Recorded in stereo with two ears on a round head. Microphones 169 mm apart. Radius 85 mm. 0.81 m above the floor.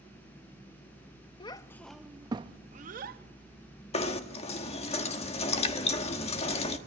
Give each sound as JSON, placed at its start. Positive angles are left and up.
{"t": 1.4, "sound": "a child speaking", "side_deg": 25, "distance_m": 0.7}
{"t": 3.9, "sound": "knocking", "side_deg": 35, "distance_m": 1.3}